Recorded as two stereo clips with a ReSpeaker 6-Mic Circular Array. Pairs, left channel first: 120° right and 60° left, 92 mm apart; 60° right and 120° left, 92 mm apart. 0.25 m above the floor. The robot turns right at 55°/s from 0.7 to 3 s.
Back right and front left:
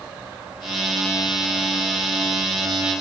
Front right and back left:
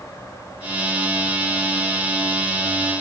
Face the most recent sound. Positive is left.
No sound to turn to.